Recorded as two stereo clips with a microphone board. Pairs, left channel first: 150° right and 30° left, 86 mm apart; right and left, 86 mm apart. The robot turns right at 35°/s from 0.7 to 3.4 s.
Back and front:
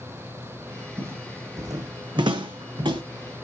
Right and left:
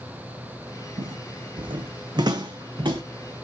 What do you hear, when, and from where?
1.0 s footsteps: 90° left, 0.7 m; by 3.0 s 55° left, 1.0 m